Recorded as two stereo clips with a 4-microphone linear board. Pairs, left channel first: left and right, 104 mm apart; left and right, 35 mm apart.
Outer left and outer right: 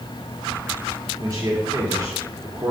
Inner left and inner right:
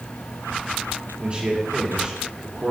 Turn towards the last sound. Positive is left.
turn(degrees=-35)  # may be behind; listen again after turning